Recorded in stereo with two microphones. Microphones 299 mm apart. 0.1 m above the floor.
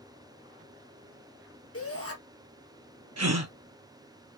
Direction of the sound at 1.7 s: 50° left (ahead or behind).